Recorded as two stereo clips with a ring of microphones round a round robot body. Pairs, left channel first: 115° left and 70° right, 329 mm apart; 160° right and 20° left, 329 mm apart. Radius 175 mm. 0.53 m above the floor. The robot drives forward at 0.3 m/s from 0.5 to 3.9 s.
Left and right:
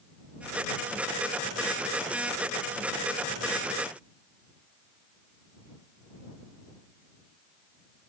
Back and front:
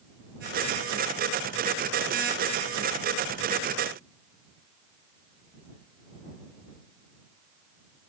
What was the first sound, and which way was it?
Only background noise.